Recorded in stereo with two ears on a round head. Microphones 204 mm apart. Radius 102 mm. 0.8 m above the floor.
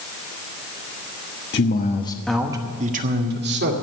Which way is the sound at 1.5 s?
50° left (ahead or behind).